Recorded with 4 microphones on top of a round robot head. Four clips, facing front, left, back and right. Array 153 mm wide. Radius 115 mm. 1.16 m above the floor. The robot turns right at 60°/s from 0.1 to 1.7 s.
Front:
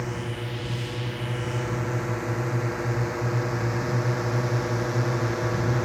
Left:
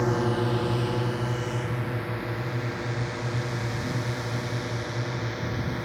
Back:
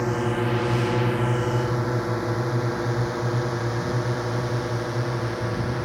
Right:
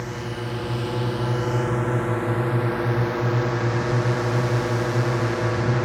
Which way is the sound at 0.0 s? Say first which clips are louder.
Left 6 dB, back 8 dB; 135° left.